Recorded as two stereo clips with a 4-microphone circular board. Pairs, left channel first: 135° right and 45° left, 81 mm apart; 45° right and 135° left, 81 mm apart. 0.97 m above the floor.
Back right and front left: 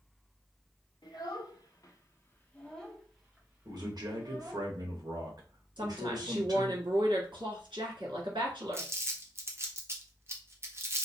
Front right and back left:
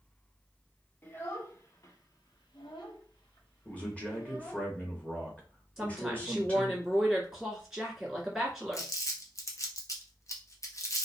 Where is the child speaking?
110° right, 1.2 m; by 4.7 s 10° right, 1.5 m.